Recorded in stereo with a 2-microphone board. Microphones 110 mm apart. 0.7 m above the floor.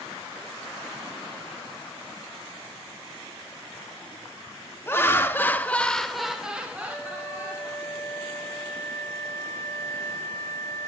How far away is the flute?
About 1.2 m.